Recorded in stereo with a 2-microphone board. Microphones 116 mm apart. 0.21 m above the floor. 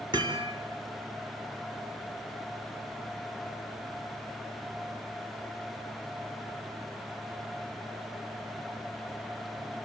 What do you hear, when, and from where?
0.1 s hammering: 40° right (ahead or behind), 4.5 m